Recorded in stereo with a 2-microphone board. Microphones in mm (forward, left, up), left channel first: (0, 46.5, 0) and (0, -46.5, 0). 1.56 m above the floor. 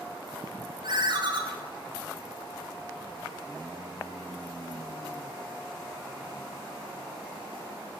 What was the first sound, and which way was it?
A ringtone, 50° right (ahead or behind).